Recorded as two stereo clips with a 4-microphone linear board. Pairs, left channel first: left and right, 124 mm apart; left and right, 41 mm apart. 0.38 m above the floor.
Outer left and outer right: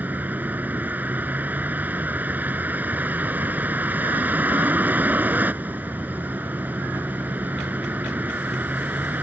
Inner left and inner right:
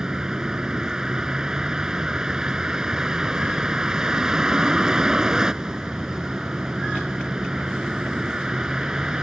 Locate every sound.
0.0 s a vehicle: 15° right (ahead or behind)